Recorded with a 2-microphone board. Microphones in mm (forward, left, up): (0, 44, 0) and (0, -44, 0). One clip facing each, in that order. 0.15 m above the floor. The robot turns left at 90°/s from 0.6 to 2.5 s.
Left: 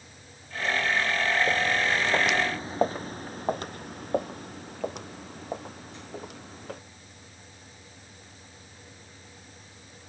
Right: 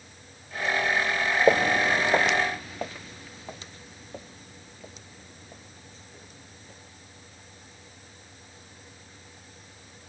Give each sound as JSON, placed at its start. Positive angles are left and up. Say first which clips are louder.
{"t": 1.5, "sound": "footsteps", "louder": "right 5 dB", "side_deg": -75}